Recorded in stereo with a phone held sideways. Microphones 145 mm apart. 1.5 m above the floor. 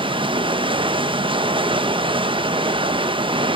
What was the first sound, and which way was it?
Running water, 35° right (ahead or behind).